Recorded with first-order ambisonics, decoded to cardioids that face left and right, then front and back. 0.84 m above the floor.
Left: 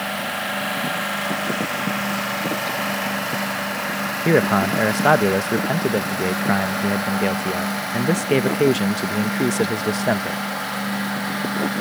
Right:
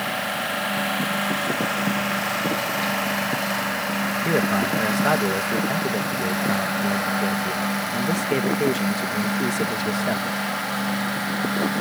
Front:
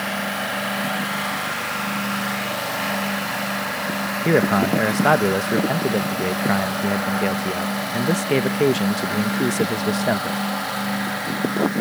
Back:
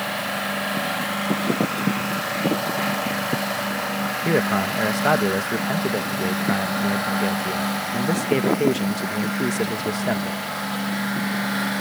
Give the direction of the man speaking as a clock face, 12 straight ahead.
10 o'clock.